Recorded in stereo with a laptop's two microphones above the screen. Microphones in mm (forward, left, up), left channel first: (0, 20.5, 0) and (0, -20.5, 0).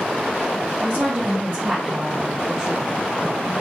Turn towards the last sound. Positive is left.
turn(degrees=20)  # may be behind; listen again after turning